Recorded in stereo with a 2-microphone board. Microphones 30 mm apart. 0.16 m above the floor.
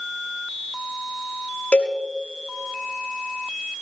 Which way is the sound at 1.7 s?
50° left (ahead or behind).